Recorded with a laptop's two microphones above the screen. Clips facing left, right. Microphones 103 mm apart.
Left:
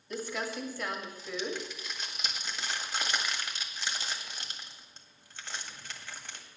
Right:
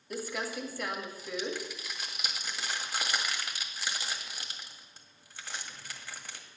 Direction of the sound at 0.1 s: 10° right (ahead or behind).